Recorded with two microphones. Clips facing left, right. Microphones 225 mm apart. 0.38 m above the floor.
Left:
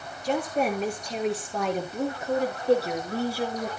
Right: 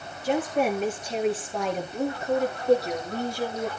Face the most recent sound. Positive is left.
turn(degrees=10)  # may be behind; listen again after turning